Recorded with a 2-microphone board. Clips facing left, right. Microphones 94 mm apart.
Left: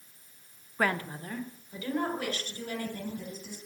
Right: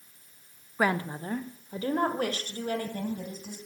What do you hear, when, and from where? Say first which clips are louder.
0.8 s a woman speaking: right 3 dB; 10° right (ahead or behind), 0.7 m; by 3.6 s 50° right (ahead or behind), 3.5 m